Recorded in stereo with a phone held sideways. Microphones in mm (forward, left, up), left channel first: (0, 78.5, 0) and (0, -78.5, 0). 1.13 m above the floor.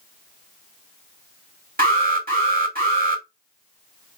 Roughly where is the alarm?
Right.